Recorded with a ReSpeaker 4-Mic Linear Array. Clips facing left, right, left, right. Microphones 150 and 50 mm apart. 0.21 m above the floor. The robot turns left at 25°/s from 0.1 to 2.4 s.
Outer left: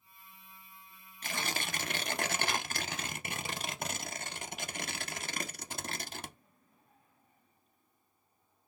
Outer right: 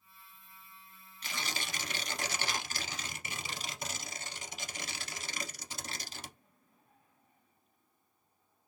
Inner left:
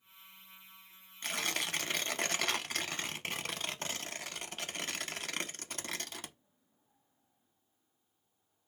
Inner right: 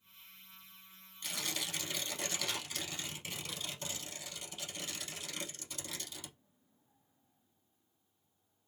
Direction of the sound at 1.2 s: 50° left (ahead or behind).